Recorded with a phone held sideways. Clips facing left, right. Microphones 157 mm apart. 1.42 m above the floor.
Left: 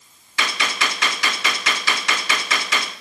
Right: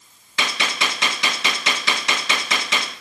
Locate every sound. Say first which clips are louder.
0.4 s a gunshot: even; 25° right (ahead or behind), 0.8 m